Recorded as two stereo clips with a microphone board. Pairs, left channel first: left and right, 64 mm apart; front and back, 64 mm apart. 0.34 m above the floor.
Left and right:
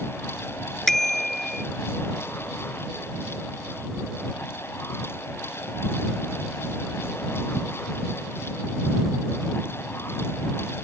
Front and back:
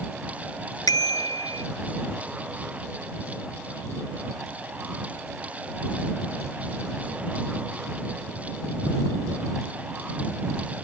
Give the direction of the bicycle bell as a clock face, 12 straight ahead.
12 o'clock.